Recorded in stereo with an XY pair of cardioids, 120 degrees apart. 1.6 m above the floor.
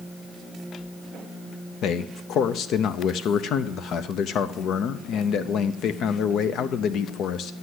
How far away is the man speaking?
About 0.6 m.